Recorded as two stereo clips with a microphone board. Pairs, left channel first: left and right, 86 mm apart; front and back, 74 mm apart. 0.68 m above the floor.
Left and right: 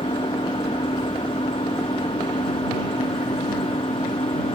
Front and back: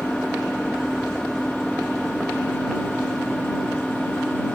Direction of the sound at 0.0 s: 85° left.